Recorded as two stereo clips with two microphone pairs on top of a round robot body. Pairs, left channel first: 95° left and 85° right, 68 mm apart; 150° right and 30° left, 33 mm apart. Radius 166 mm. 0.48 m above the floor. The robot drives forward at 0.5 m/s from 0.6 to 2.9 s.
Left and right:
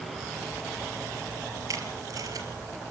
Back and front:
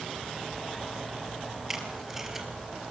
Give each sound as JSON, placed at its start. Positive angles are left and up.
{"t": 1.7, "sound": "tape being pulled", "azimuth_deg": -50, "distance_m": 3.5}